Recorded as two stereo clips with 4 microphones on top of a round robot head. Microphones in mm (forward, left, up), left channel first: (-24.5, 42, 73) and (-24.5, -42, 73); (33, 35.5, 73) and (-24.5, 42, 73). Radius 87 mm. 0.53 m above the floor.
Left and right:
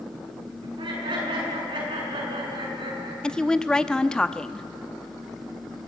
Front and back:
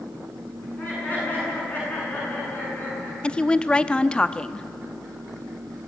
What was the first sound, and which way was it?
Laughter, 70° right.